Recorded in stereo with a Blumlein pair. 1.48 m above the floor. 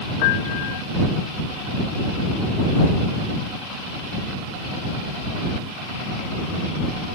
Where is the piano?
45° left.